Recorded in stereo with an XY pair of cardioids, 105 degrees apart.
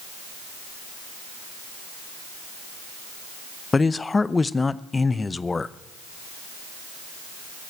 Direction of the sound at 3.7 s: 25° left.